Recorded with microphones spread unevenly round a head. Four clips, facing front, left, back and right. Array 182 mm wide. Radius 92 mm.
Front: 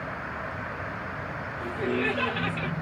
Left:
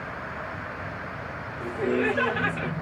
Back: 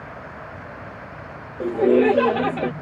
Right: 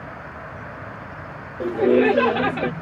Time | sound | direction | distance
1.6 | laughter | 140° right | ?